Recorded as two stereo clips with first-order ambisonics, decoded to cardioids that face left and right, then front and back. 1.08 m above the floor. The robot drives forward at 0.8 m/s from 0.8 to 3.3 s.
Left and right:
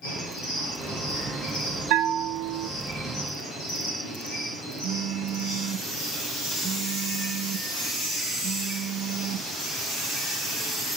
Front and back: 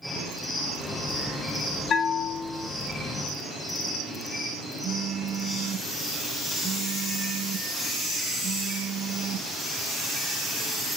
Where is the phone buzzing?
135° right, 1.0 m.